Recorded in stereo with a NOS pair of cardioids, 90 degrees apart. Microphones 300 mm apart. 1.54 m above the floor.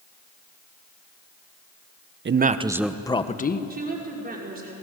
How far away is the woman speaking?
About 5.5 m.